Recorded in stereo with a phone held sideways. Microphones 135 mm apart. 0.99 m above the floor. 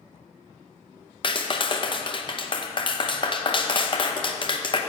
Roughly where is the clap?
Left.